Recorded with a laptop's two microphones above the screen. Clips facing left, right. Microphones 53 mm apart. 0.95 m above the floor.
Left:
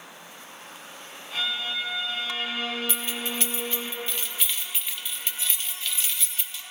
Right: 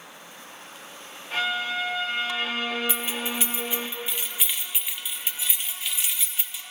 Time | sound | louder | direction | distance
1.3 | a violin | right 4 dB | 65° right (ahead or behind) | 1.3 m
2.9 | keys jangling | right 2 dB | 10° right (ahead or behind) | 0.6 m